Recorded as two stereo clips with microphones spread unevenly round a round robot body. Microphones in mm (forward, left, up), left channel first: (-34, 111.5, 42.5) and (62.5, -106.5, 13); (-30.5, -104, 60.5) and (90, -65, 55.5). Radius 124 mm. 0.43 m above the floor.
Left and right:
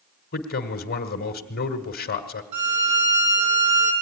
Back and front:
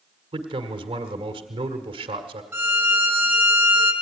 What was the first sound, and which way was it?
A man speaking, 65° left.